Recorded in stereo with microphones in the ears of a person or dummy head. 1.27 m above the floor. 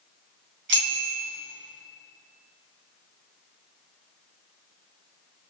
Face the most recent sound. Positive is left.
turn(degrees=-65)  # may be behind; listen again after turning